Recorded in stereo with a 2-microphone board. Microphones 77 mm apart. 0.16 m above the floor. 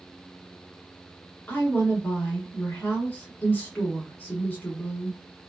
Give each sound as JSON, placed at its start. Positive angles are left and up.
{"t": 1.5, "sound": "a woman speaking", "side_deg": 25, "distance_m": 1.5}